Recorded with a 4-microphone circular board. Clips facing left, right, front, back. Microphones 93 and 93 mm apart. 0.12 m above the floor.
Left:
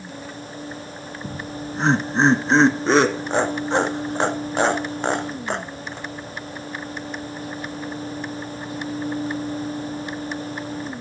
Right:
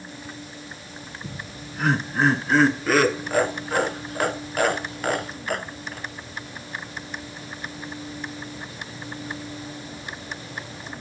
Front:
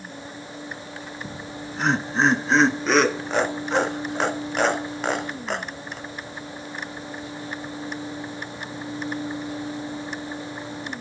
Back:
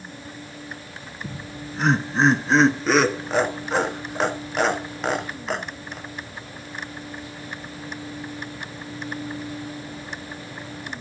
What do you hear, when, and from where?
1.2 s laughter: 90° left, 1.1 m